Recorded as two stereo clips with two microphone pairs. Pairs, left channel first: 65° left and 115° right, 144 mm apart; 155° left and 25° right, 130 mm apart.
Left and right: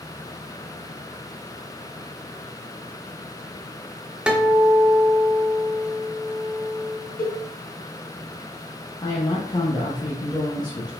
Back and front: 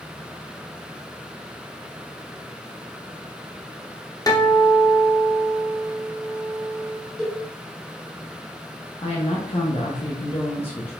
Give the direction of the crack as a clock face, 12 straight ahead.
No crack in this recording.